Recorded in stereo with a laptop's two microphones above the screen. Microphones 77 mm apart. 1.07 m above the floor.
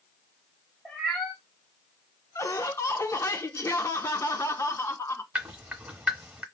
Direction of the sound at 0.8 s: 5° left (ahead or behind).